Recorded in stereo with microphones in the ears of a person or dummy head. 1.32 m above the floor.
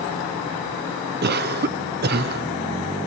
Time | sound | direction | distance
1.2 | a cough | 45° right (ahead or behind) | 0.6 m